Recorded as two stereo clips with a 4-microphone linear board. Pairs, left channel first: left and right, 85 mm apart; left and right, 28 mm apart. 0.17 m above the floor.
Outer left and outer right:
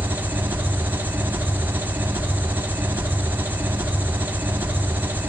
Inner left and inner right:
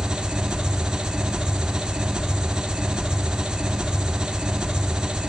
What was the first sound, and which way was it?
An engine running, 25° right (ahead or behind).